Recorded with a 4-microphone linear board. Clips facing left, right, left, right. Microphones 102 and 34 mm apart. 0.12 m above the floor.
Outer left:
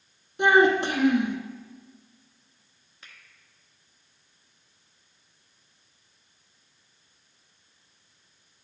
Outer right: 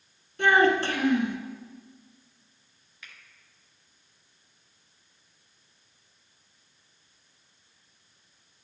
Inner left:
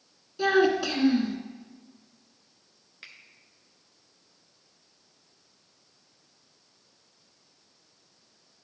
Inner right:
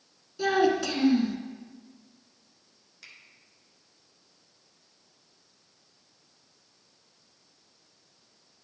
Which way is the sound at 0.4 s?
20° left (ahead or behind).